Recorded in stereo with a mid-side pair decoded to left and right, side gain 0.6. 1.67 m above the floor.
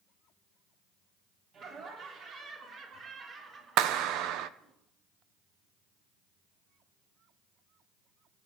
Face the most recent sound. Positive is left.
turn(degrees=-65)